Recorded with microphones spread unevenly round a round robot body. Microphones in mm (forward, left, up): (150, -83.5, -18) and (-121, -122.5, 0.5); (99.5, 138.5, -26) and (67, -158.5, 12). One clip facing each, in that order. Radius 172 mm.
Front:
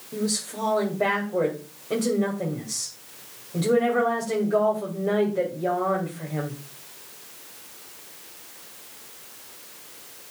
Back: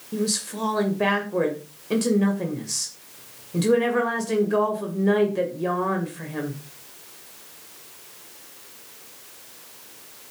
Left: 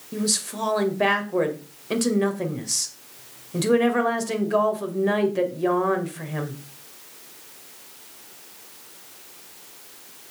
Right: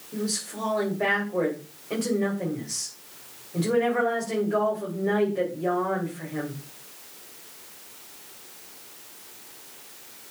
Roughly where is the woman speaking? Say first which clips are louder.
Back 2 dB, left 3 dB; behind left.